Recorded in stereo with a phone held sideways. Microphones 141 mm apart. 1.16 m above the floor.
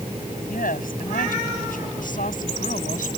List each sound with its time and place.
0.4 s a woman speaking: 80° left; by 3.1 s 70° left (ahead or behind)